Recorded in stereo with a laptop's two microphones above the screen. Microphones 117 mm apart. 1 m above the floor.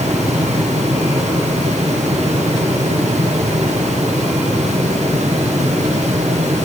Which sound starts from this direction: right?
A fan, at 0.0 s.